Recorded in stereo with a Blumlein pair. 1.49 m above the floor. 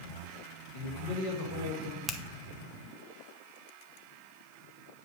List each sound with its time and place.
0.7 s a man speaking: 50° left, 2.5 m
2.1 s a finger snap: 10° left, 0.8 m